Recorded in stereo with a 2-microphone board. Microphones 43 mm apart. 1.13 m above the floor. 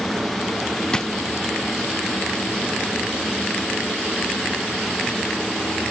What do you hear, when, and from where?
0.9 s a drawer: 20° left (ahead or behind)